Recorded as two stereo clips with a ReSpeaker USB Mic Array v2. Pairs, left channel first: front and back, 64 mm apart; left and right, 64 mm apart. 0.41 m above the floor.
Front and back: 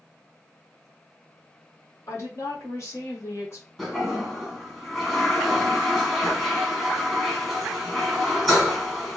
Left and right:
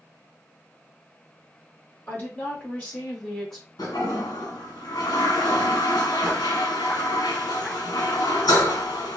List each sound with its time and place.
2.1 s a woman speaking: 35° left, 1.7 m; by 3.7 s straight ahead, 1.1 m
3.8 s a toilet flushing: 85° left, 1.2 m